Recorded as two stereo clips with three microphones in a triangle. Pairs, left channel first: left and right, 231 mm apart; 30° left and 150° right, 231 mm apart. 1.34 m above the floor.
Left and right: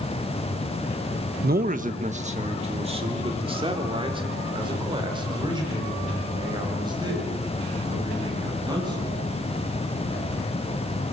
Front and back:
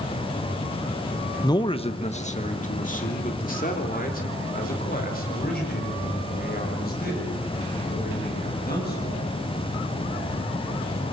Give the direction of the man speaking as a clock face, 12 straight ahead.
2 o'clock.